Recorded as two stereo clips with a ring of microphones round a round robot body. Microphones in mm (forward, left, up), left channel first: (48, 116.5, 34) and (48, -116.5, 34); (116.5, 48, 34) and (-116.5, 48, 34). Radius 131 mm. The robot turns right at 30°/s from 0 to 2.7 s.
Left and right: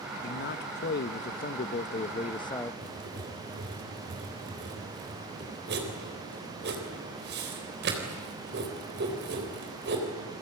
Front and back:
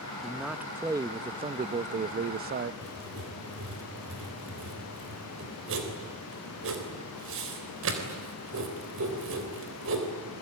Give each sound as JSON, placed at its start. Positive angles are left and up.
{"t": 0.2, "sound": "a man speaking", "azimuth_deg": 90, "distance_m": 0.8}
{"t": 2.8, "sound": "writing", "azimuth_deg": -140, "distance_m": 3.5}